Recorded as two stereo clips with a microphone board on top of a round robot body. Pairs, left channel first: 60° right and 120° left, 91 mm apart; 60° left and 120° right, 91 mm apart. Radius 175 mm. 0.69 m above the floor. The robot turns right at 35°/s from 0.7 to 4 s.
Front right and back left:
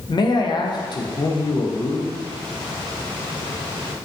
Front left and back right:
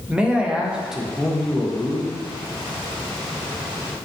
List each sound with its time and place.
0.1 s a man speaking: 40° right, 0.6 m; by 2.2 s 10° left, 0.6 m